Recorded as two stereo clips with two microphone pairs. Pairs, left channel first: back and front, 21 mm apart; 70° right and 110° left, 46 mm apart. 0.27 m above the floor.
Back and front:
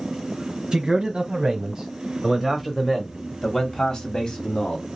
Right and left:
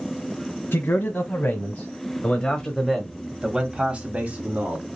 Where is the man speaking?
40° right, 2.0 m; by 4.9 s 155° left, 2 m.